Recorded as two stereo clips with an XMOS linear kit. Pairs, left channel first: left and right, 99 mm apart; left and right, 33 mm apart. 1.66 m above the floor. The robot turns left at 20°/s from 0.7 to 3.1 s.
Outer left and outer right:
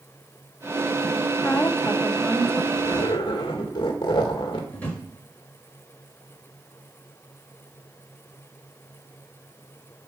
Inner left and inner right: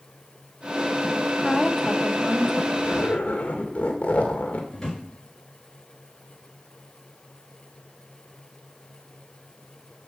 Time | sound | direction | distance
1.4 | a woman speaking | 20° left (ahead or behind) | 1.0 m
2.8 | a zipper | 55° left (ahead or behind) | 2 m
4.7 | a drawer | 15° left (ahead or behind) | 5.5 m